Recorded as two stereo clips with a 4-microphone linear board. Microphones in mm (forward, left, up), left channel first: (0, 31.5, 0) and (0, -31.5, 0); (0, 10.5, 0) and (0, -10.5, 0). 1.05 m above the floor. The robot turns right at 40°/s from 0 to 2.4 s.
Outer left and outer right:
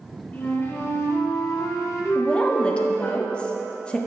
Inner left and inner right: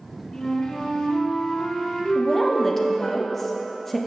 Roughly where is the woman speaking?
Centre.